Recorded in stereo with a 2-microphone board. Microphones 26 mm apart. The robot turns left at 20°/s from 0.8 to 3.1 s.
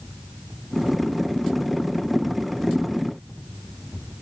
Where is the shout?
I don't hear a shout.